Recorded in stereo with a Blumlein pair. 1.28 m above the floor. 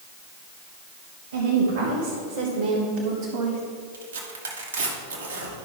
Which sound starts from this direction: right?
Tearing paper, at 3.9 s.